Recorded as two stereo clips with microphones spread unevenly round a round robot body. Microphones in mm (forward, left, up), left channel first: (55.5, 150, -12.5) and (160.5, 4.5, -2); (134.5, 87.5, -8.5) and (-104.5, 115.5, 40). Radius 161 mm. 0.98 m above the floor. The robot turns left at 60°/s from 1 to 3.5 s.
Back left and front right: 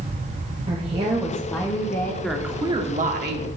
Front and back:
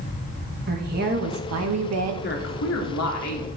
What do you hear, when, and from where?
0.7 s a woman speaking: 125° right, 1.3 m; by 2.1 s 170° left, 1.3 m
2.2 s a woman speaking: 40° left, 1.9 m; by 3.5 s 35° right, 1.9 m